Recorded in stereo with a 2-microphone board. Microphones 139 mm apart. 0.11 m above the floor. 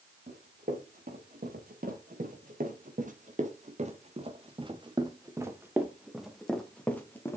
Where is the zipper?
I don't hear a zipper.